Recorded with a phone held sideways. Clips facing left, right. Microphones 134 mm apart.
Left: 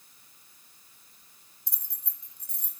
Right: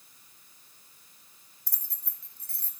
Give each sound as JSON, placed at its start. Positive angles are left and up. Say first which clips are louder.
{"t": 1.7, "sound": "keys jangling", "louder": "left 1 dB", "side_deg": 20, "distance_m": 1.4}